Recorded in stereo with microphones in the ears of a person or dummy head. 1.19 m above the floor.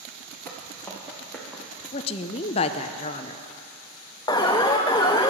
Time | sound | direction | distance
0.5 | footsteps | 15° left (ahead or behind) | 4 m
1.9 | a woman speaking | 35° left (ahead or behind) | 0.5 m
4.3 | an alarm | 25° left (ahead or behind) | 0.6 m